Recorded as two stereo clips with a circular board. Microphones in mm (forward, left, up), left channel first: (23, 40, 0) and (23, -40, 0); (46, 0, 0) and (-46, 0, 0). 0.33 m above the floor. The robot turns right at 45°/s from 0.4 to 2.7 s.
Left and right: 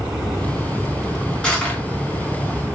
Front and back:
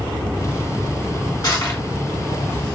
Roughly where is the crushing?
Ahead.